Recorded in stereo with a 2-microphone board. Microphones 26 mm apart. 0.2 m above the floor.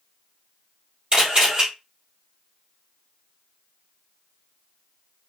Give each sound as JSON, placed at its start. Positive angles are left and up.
{"t": 1.1, "sound": "a camera shutter", "side_deg": -35, "distance_m": 3.5}